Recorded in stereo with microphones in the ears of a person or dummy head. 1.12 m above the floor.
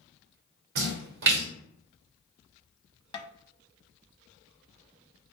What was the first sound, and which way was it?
A splash, 70° right (ahead or behind).